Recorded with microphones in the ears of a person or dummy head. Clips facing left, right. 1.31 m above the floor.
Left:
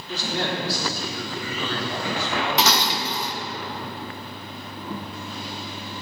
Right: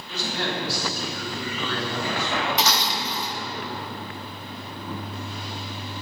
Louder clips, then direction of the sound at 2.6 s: Left 3 dB; 50° left (ahead or behind).